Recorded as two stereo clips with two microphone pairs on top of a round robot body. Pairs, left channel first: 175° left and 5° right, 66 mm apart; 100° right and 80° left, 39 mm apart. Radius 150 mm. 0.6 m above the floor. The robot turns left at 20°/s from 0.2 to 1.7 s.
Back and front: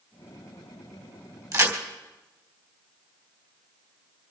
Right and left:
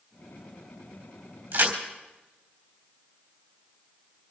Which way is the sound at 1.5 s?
35° left.